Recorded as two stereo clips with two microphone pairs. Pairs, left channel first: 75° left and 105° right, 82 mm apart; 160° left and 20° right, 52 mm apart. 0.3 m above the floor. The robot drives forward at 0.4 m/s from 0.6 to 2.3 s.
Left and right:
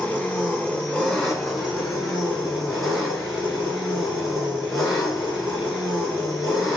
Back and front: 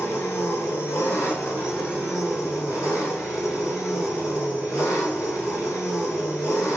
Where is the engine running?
155° left, 0.7 m; by 6.8 s 165° left, 1.4 m.